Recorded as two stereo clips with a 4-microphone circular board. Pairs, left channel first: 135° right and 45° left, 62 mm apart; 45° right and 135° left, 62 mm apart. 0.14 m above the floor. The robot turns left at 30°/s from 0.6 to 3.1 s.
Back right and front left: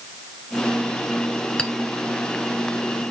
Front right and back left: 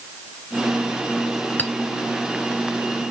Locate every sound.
1.6 s a clink: 75° right, 0.9 m; by 1.7 s 80° right, 0.9 m